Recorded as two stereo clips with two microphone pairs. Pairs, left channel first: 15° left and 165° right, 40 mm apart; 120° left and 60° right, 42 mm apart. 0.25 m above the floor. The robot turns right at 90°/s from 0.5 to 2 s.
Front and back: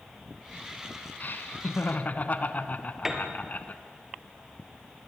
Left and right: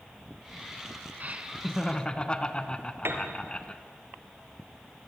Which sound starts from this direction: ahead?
Laughter, at 1.2 s.